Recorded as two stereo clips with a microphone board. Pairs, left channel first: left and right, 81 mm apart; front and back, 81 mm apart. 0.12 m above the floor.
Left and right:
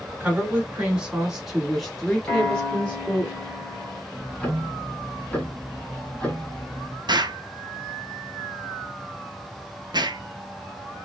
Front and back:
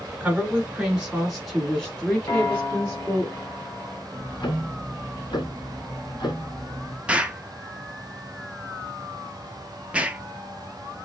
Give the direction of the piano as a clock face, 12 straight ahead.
12 o'clock.